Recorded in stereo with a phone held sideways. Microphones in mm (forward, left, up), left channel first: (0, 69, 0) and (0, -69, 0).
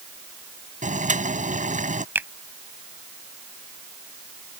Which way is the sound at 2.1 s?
15° right (ahead or behind).